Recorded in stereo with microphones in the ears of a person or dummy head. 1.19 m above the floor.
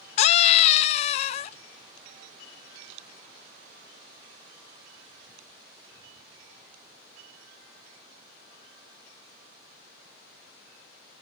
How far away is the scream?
About 0.6 m.